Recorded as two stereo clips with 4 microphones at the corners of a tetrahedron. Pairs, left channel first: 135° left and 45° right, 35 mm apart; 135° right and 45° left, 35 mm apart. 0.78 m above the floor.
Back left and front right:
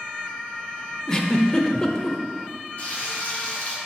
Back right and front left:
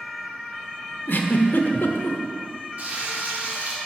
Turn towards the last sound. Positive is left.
turn(degrees=90)